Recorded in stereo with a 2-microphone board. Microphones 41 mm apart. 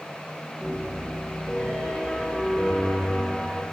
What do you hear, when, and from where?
0.6 s a piano: 30° left (ahead or behind), 1.2 m